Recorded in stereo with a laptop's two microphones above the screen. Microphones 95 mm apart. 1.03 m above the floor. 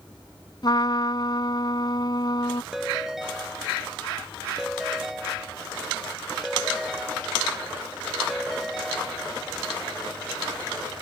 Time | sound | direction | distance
0.6 | a trumpet | 50° left (ahead or behind) | ?
2.7 | a ringtone | 5° right (ahead or behind) | ?